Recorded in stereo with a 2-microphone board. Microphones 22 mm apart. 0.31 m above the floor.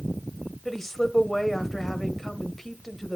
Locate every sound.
0.7 s a woman speaking: 15° left (ahead or behind), 1.1 m